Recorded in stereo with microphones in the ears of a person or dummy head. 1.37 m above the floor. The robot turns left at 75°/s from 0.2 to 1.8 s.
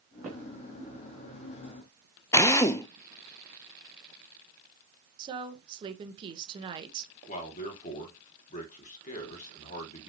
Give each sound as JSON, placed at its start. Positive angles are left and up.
{"t": 0.2, "sound": "footsteps", "side_deg": 0, "distance_m": 3.5}
{"t": 2.3, "sound": "a drill", "side_deg": 15, "distance_m": 0.5}
{"t": 5.2, "sound": "a woman speaking", "side_deg": -25, "distance_m": 1.4}
{"t": 7.3, "sound": "a man speaking", "side_deg": 40, "distance_m": 2.5}